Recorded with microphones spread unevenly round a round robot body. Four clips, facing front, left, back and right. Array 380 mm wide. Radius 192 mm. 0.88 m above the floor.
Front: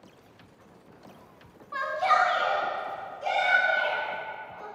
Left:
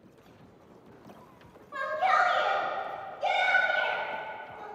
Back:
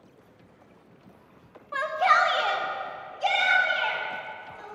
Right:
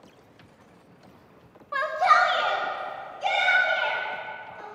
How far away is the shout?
About 0.7 m.